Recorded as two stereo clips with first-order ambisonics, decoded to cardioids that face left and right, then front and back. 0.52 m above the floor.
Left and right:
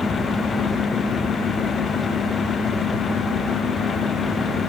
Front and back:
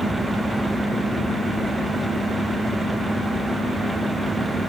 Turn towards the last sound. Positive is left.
No sound to turn to.